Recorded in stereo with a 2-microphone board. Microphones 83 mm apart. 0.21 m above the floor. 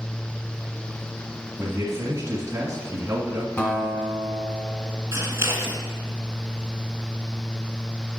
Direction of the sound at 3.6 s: 25° left (ahead or behind).